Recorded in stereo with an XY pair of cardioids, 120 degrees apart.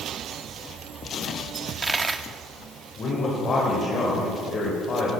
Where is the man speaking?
45° left, 4.5 m.